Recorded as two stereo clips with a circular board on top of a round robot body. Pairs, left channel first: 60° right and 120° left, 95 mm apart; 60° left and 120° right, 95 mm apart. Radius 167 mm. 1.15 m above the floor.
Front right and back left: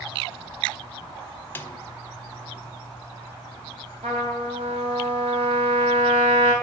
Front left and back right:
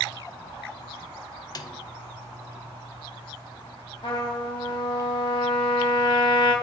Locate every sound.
1.6 s a snare drum: 10° left, 0.5 m
4.0 s a trumpet: 100° left, 2.5 m